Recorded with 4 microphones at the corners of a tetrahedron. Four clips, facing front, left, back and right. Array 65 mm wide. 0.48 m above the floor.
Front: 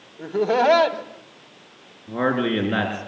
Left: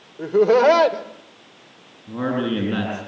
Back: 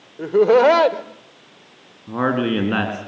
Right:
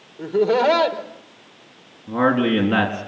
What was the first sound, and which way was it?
Laughter, 160° left.